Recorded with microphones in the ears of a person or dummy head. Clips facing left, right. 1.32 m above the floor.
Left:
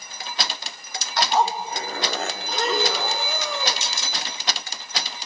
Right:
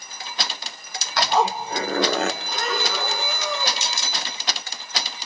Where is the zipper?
70° right (ahead or behind), 0.7 m.